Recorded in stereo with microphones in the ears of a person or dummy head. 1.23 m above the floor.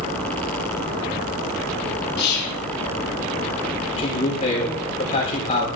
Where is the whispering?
55° left (ahead or behind), 1.0 m.